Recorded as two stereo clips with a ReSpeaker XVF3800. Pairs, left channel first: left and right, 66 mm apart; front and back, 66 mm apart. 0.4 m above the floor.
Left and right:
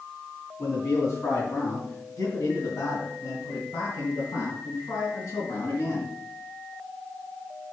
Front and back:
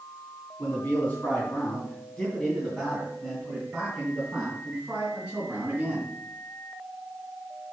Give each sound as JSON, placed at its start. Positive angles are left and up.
{"t": 0.6, "sound": "a man speaking", "azimuth_deg": 60, "distance_m": 3.0}